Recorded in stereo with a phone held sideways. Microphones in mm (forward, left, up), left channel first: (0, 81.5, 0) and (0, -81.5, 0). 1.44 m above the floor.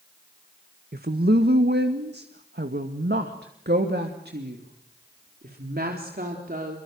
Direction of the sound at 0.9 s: 65° right (ahead or behind).